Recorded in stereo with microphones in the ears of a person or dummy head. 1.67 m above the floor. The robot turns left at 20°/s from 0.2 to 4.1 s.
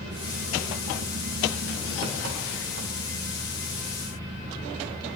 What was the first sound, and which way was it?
An engine running, 70° right.